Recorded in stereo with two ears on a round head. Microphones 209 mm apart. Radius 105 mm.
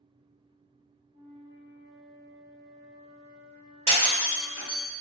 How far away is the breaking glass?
About 1.2 m.